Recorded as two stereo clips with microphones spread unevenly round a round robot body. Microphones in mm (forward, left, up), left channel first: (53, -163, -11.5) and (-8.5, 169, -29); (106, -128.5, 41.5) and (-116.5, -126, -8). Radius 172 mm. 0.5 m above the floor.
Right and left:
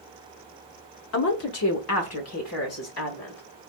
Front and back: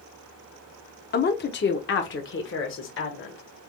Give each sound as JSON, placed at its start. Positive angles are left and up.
{"t": 1.1, "sound": "a woman speaking", "azimuth_deg": -45, "distance_m": 0.9}